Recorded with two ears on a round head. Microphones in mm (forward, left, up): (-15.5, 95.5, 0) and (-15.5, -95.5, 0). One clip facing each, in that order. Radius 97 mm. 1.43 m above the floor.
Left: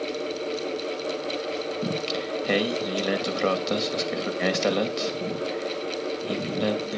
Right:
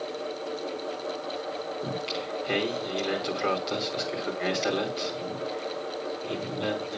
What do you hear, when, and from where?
1.8 s singing: 70° left (ahead or behind), 2.5 m